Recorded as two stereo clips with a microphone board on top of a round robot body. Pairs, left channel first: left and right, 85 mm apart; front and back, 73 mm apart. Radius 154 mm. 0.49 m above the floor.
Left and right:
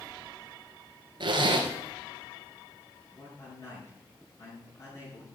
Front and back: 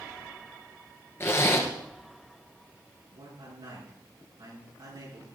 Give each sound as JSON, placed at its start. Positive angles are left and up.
{"t": 1.2, "sound": "a zipper", "azimuth_deg": -55, "distance_m": 1.9}
{"t": 3.1, "sound": "a man speaking", "azimuth_deg": 140, "distance_m": 6.5}